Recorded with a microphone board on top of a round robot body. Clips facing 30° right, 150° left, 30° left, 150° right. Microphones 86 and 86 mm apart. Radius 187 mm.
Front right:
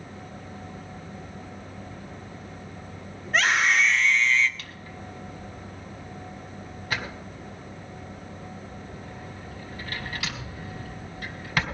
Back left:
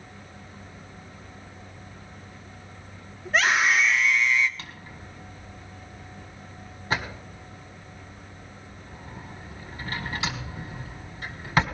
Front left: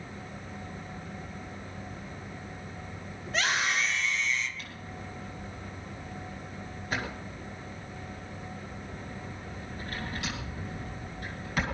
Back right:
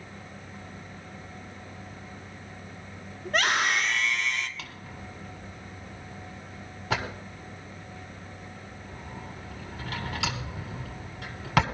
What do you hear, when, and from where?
3.2 s a scream: 120° right, 2.5 m; by 4.5 s 135° right, 1.8 m
4.6 s a drawer: 145° right, 1.6 m